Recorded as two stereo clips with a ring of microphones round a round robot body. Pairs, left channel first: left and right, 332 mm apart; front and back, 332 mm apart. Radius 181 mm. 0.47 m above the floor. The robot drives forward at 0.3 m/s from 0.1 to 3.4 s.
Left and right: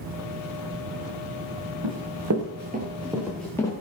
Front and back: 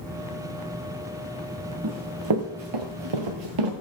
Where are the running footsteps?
125° right, 2 m; by 3.7 s 170° left, 2.5 m.